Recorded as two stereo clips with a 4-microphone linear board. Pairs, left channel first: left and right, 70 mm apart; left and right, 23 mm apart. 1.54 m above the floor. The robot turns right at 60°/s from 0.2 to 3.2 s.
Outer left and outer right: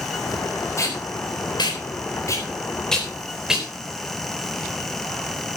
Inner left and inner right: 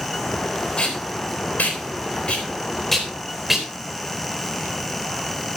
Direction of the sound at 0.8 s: 40° left (ahead or behind).